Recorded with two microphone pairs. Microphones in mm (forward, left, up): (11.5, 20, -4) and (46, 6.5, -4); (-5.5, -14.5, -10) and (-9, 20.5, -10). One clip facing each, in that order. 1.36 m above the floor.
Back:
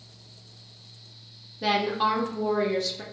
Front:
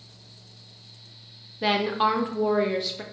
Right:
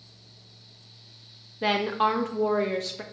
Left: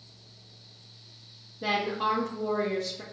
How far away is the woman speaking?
About 0.6 m.